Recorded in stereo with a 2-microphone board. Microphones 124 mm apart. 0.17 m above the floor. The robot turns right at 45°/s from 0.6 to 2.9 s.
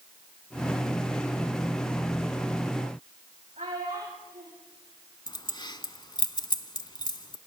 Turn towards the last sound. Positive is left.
turn(degrees=35)  # may be behind; listen again after turning